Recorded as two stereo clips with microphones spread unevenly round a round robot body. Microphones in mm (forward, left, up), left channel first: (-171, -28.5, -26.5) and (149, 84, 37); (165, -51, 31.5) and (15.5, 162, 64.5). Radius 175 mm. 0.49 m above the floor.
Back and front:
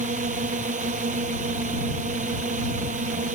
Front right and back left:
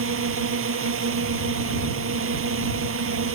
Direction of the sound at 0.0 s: 90° left.